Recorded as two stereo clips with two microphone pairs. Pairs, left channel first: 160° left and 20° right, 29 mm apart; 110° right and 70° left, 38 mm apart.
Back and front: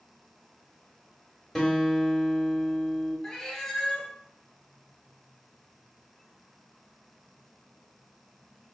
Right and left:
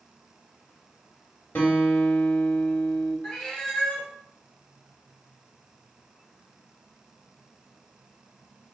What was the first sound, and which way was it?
A guitar, 115° right.